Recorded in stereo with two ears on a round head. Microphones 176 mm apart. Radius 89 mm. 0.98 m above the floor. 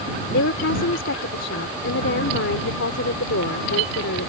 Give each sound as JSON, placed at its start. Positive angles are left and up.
{"t": 0.3, "sound": "a woman speaking", "side_deg": 75}